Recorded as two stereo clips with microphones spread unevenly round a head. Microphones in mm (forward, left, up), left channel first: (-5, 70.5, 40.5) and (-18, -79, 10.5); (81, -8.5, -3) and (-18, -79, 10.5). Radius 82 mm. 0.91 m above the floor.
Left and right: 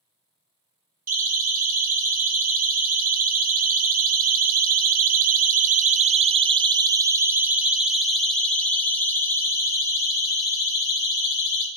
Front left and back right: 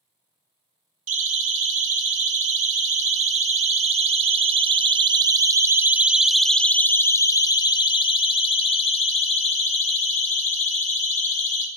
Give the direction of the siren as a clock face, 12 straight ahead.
4 o'clock.